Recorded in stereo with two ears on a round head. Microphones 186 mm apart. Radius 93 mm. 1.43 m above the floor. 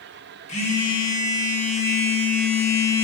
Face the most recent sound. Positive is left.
turn(degrees=35)  # may be behind; listen again after turning